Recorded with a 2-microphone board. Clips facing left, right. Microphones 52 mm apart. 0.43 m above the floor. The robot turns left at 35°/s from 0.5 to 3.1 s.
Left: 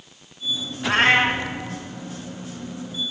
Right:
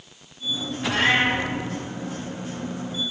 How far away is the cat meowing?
About 1.2 m.